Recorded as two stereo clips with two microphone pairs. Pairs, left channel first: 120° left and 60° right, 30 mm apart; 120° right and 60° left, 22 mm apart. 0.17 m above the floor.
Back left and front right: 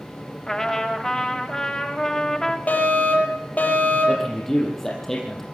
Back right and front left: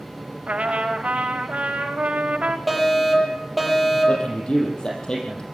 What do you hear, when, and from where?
0.5 s a trumpet: 45° left, 7.5 m
2.7 s a fire alarm: 150° left, 8 m
4.1 s a man speaking: 165° right, 6.5 m